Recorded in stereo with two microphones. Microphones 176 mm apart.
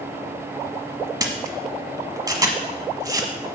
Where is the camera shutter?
20° right (ahead or behind), 1.2 m.